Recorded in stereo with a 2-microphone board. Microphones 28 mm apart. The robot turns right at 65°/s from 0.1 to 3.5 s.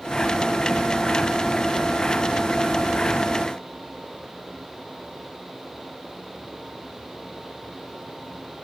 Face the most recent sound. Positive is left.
No sound to turn to.